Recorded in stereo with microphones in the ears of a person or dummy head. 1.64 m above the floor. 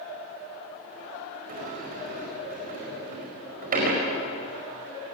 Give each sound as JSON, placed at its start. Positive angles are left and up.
{"t": 1.5, "sound": "a sliding door", "side_deg": -45, "distance_m": 5.0}